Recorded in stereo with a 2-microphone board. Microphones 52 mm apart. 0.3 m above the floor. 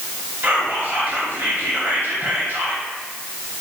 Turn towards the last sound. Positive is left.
turn(degrees=-40)  # may be behind; listen again after turning